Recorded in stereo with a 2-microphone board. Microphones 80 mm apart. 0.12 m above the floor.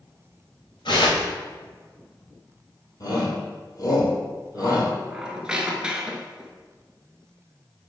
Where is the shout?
45° left (ahead or behind), 3 m.